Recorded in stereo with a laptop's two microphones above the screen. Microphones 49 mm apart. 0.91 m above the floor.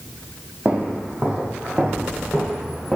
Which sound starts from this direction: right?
Footsteps, at 0.7 s.